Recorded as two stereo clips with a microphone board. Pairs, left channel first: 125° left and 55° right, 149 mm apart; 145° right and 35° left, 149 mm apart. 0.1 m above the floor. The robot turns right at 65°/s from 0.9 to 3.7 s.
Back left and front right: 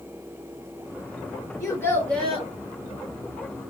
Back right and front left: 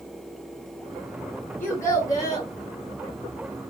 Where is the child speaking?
160° left, 0.9 m; by 2.5 s 140° right, 0.9 m.